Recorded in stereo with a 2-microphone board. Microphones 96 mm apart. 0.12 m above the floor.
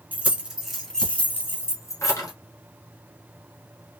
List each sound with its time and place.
0.1 s keys jangling: 15° right (ahead or behind), 1.2 m; by 2.3 s 35° left (ahead or behind), 1.5 m